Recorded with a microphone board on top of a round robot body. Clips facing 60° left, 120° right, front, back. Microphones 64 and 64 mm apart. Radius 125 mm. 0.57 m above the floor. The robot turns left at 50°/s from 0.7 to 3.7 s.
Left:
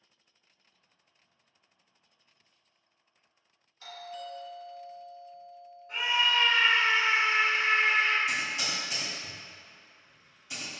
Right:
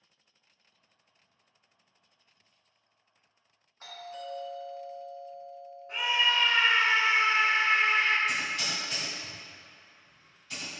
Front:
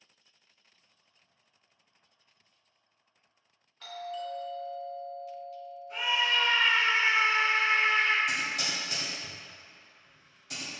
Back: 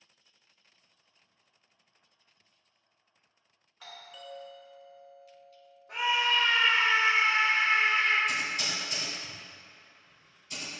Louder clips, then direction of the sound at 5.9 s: Even, back 2 dB; 170° left.